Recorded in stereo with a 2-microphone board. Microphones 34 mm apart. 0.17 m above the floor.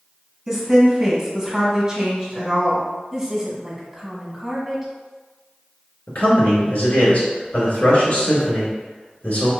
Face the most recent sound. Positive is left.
turn(degrees=45)  # may be behind; listen again after turning